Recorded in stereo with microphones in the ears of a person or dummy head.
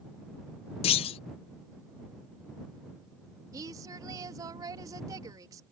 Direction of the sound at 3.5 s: 20° right (ahead or behind).